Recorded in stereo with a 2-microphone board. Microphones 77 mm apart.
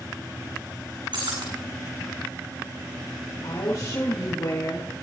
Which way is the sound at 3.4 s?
75° left (ahead or behind).